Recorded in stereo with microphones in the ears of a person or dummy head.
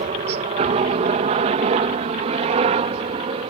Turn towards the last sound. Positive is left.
turn(degrees=-35)  # may be behind; listen again after turning